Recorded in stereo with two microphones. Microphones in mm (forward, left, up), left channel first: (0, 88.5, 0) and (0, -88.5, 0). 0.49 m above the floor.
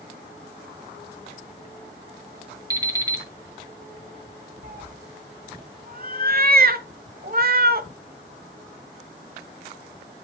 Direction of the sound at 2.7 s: 20° right (ahead or behind).